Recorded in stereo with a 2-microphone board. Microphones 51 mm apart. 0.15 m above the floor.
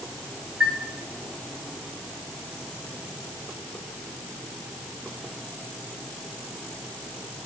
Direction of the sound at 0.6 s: 15° right (ahead or behind).